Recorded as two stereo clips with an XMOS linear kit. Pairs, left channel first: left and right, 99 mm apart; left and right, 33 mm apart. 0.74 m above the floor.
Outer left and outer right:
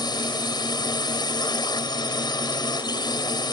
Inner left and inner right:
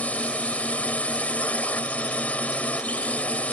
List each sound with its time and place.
0.0 s a drone: 45° left (ahead or behind)